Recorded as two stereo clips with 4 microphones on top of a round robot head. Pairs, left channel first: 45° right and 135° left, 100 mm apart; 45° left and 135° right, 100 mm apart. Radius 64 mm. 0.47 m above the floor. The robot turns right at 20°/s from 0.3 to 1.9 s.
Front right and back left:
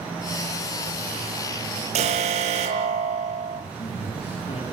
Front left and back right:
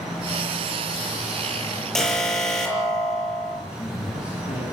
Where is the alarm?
130° left, 8 m.